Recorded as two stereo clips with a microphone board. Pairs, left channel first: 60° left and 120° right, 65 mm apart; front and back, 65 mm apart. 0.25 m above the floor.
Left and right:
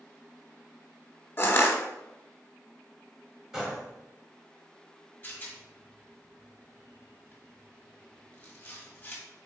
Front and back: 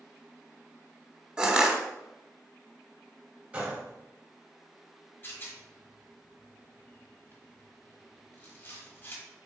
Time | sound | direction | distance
1.4 | crushing | 110° left | 0.7 m
3.5 | a gunshot | 170° left | 1.2 m
5.2 | a rattle | 20° left | 1.3 m